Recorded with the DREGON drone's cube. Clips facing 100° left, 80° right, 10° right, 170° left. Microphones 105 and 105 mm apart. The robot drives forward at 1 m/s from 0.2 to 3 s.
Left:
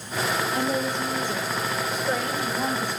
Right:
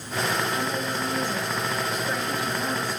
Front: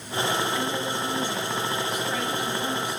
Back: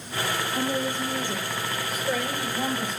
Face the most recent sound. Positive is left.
turn(degrees=160)